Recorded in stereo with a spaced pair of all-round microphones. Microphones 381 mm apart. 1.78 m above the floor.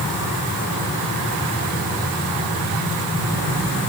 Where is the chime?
I don't hear a chime.